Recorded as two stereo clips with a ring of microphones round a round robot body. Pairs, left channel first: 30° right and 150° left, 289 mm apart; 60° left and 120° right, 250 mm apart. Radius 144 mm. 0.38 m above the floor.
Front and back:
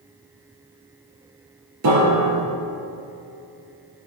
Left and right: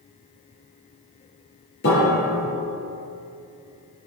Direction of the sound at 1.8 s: 115° left.